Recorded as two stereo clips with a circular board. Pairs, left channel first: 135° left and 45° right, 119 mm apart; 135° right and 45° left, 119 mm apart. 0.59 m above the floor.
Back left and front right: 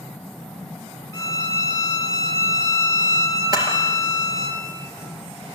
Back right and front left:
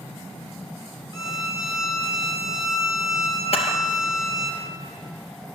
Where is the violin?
175° right, 1.7 m.